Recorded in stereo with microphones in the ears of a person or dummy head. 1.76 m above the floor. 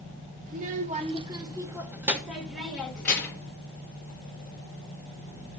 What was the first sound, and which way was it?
A child speaking, 45° right (ahead or behind).